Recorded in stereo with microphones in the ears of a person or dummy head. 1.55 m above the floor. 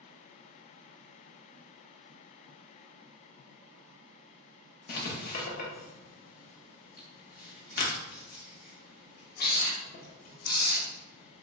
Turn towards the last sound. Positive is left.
turn(degrees=55)  # may be behind; listen again after turning